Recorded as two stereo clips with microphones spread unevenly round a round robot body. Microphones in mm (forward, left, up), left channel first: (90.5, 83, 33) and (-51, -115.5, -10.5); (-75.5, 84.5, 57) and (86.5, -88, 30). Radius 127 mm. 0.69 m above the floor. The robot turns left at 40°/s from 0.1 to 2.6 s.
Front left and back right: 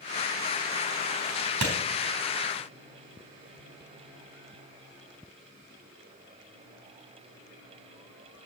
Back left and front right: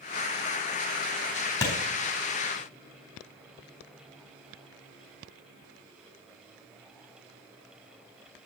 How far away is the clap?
About 3.5 m.